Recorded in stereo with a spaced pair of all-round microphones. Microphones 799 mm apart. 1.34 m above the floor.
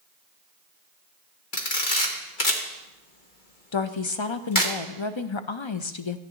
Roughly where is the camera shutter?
Left.